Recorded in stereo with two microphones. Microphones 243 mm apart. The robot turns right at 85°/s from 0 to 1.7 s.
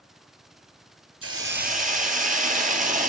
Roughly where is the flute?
No flute in this recording.